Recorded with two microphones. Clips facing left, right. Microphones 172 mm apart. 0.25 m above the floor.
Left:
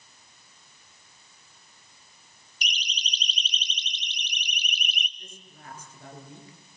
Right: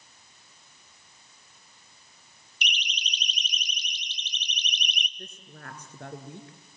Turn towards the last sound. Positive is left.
turn(degrees=-70)  # may be behind; listen again after turning